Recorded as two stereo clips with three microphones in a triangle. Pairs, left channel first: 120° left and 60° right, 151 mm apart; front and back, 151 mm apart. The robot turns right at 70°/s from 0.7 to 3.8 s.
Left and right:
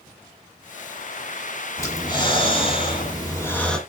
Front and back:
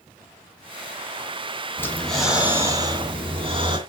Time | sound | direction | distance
1.8 | breathing | 65° left | 1.8 m